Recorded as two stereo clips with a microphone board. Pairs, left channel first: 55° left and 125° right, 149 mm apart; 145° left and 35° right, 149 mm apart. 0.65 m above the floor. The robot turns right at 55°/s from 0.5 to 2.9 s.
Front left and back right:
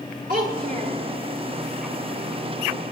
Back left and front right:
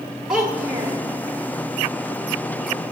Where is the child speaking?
120° right, 1.5 m; by 1.0 s 90° right, 1.5 m.